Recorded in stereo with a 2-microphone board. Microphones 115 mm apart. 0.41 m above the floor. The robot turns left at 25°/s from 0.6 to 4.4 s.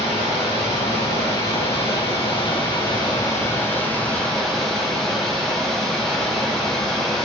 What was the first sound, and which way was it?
Running water, 100° left.